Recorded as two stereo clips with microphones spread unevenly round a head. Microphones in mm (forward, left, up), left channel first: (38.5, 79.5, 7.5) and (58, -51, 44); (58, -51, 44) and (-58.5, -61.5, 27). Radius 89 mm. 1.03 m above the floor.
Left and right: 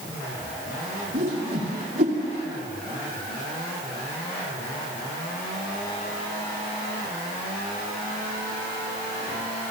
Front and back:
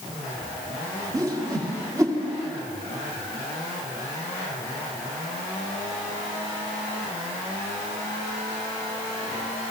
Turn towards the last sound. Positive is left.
turn(degrees=-115)